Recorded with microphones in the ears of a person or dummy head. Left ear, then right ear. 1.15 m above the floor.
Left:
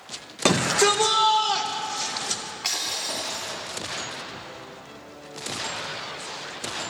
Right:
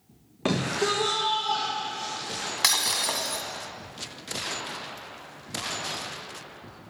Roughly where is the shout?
Left.